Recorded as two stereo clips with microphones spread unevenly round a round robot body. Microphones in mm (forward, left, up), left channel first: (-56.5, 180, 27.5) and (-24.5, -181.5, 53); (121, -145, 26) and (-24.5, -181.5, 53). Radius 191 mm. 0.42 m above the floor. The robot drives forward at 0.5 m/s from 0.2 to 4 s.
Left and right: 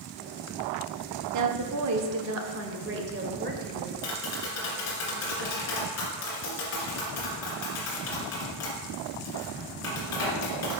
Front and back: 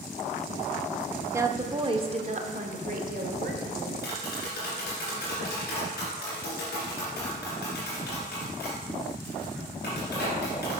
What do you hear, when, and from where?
1.3 s a woman speaking: 85° right, 1.0 m; by 3.9 s 155° right, 1.6 m
4.0 s tapping: 40° left, 2 m